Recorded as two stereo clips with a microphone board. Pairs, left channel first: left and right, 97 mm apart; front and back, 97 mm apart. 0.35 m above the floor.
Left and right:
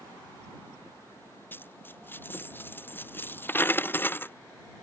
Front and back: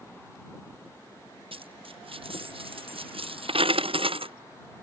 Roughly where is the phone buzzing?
No phone buzzing in this recording.